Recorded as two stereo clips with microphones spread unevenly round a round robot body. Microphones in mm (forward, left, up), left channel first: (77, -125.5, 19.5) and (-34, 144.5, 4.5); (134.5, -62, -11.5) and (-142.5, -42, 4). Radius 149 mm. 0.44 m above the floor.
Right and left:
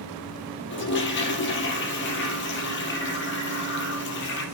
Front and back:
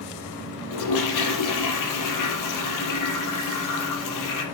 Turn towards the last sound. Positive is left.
turn(degrees=-15)